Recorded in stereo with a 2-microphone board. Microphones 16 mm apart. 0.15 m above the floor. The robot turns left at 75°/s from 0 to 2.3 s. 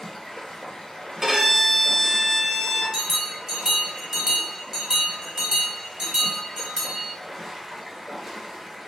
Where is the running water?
155° left, 1.0 m; by 8.9 s 20° right, 1.0 m.